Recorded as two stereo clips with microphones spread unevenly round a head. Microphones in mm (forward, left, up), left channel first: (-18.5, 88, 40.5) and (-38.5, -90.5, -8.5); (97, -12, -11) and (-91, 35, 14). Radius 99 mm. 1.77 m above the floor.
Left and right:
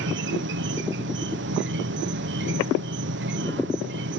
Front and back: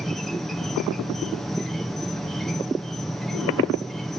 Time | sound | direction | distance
0.0 | an insect | 100° right | ?